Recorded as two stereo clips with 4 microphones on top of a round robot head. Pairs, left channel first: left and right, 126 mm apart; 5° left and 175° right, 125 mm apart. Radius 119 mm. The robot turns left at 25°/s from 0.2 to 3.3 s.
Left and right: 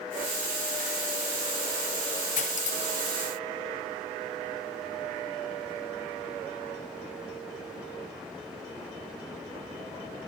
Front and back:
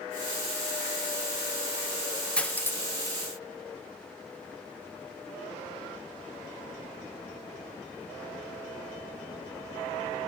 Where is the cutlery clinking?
85° left, 0.7 m; by 3.2 s 65° left, 0.7 m.